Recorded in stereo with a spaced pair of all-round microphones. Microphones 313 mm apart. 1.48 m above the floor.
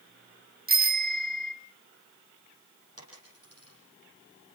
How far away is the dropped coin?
About 9.5 m.